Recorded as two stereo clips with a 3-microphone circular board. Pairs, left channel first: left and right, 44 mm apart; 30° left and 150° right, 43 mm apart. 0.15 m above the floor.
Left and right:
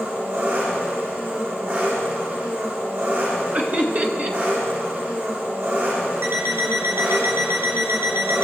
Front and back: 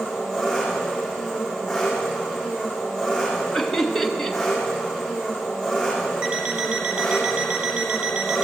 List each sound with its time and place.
0.0 s an engine running: 60° right, 7.5 m
3.5 s laughter: 55° right, 1.8 m
6.2 s an alarm clock: 85° right, 2.5 m